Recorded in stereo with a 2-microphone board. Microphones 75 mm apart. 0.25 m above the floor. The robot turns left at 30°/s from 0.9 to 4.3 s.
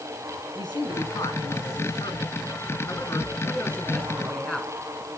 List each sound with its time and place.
0.6 s a man speaking: 105° left, 3.5 m; by 4.7 s 5° left, 3.5 m